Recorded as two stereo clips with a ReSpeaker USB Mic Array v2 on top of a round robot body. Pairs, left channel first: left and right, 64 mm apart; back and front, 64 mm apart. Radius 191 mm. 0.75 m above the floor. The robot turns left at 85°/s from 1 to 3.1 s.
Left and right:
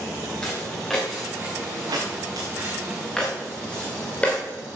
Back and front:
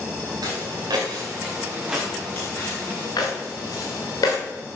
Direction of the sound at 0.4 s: 10° left.